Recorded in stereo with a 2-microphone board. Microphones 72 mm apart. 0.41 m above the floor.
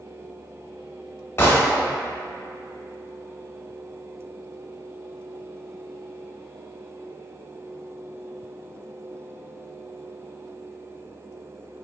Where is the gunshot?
35° left (ahead or behind), 0.9 m.